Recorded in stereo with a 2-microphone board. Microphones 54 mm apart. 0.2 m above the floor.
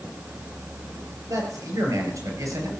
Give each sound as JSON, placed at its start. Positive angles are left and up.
{"t": 1.3, "sound": "a man speaking", "side_deg": -75, "distance_m": 5.5}